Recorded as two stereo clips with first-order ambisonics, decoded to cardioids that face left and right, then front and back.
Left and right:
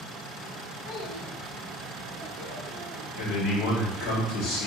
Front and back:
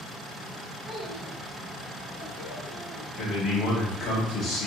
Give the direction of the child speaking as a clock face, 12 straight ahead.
9 o'clock.